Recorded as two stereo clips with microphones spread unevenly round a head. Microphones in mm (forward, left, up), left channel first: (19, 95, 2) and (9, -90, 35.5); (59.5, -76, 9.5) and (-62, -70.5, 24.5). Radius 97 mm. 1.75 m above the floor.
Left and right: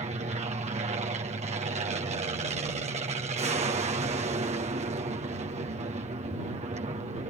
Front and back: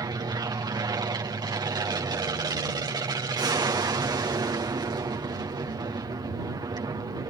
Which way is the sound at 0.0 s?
140° right.